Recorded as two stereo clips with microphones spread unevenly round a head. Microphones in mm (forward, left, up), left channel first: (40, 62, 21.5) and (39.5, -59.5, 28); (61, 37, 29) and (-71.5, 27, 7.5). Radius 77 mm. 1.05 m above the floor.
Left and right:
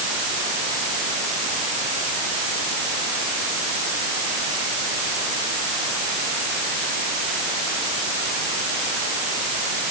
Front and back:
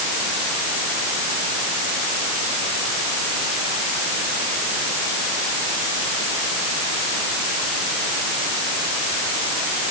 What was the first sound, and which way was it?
Only background noise.